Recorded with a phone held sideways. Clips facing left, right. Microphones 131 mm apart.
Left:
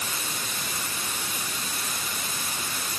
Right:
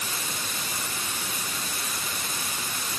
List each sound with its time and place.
Only background noise.